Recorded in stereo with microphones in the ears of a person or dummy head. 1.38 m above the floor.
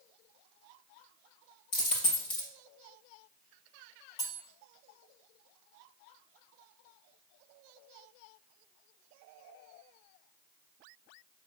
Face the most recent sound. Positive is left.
turn(degrees=20)  # may be behind; listen again after turning